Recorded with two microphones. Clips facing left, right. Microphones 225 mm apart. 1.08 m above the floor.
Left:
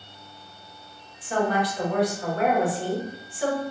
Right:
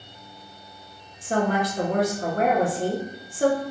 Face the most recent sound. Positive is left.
turn(degrees=-45)  # may be behind; listen again after turning